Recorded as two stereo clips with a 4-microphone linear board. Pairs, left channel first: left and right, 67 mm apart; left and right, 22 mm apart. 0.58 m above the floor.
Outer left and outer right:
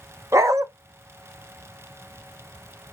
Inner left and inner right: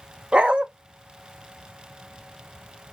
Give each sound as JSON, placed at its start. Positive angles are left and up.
{"t": 0.3, "sound": "a dog barking", "side_deg": -50, "distance_m": 0.5}